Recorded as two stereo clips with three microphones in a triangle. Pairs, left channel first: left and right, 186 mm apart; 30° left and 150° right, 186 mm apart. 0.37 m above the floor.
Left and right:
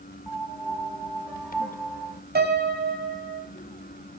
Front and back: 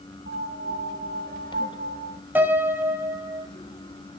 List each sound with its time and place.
0.3 s a piano: straight behind, 0.7 m
2.4 s a piano: 70° right, 1.8 m